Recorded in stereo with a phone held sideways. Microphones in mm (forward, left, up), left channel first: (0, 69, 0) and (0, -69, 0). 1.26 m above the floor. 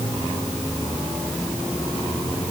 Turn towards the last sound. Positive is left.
No sound to turn to.